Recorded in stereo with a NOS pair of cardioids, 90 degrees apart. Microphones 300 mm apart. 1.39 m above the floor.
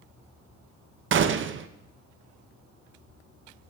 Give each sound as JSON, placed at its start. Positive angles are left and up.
{"t": 1.1, "sound": "a gunshot", "azimuth_deg": -40, "distance_m": 0.6}